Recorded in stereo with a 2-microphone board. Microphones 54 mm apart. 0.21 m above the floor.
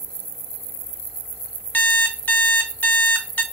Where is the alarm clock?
30° left (ahead or behind), 0.7 m.